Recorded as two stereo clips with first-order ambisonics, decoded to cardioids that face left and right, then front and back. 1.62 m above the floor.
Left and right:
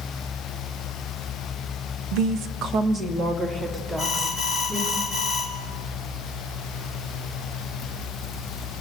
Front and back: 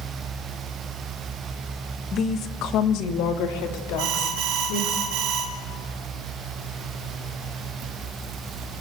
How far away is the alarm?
About 4.5 m.